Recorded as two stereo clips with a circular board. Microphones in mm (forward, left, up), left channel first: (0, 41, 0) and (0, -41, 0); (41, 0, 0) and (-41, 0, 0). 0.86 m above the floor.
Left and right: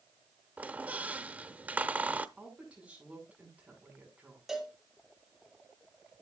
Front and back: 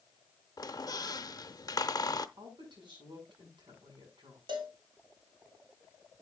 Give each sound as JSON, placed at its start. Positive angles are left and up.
{"t": 0.6, "sound": "a squeak", "azimuth_deg": -20, "distance_m": 0.7}
{"t": 2.4, "sound": "a woman speaking", "azimuth_deg": -165, "distance_m": 6.5}
{"t": 4.5, "sound": "a cowbell", "azimuth_deg": -175, "distance_m": 2.5}